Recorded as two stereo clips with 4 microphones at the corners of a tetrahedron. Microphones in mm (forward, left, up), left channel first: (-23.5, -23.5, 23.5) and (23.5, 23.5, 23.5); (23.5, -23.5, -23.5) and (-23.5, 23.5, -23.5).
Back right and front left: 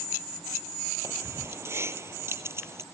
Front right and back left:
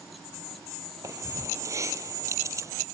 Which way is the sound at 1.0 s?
95° left.